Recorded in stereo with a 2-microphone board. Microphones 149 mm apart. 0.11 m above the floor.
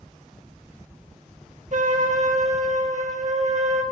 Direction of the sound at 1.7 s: 60° right (ahead or behind).